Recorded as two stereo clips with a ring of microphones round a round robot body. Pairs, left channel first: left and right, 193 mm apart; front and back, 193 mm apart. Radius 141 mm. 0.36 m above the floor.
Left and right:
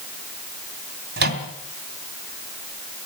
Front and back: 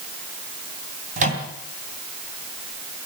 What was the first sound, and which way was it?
A microwave, 125° right.